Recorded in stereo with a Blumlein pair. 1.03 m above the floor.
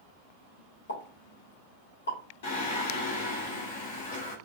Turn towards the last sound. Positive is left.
turn(degrees=55)